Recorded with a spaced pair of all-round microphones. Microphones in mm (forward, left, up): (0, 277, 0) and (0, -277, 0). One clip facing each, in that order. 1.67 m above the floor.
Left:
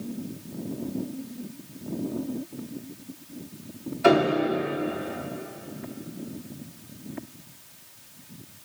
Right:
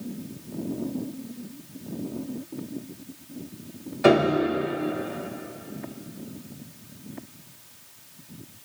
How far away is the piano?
About 2.5 m.